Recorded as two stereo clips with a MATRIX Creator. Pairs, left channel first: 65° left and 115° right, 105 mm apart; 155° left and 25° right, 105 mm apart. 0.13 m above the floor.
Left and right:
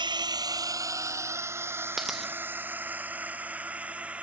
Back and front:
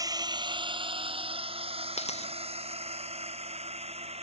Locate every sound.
0.0 s a drone: 75° right; by 4.2 s 35° right
2.0 s a dropped coin: 160° left